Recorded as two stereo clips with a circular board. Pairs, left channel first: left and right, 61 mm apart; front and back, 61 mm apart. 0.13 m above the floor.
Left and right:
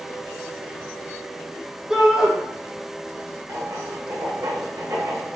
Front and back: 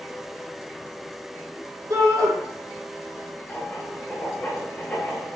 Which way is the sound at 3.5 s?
65° right.